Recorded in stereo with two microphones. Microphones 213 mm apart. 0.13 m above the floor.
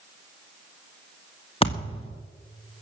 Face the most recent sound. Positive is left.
turn(degrees=25)  # may be behind; listen again after turning